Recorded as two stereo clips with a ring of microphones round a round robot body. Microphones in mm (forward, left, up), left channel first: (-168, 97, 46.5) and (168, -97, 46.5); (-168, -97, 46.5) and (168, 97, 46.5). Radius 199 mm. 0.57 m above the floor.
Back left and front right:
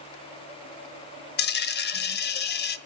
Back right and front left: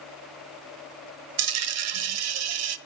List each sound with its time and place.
1.4 s a dropped coin: 85° left, 0.7 m